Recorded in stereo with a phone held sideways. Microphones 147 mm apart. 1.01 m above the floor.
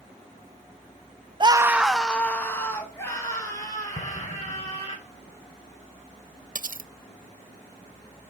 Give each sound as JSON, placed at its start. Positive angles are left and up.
{"t": 1.4, "sound": "a scream", "side_deg": -35, "distance_m": 0.5}
{"t": 4.0, "sound": "an explosion", "side_deg": 60, "distance_m": 2.5}
{"t": 6.5, "sound": "cutlery clinking", "side_deg": -65, "distance_m": 0.5}